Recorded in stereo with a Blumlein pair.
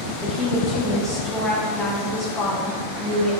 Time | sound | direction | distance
0.2 | a woman speaking | 15° left | 1.0 m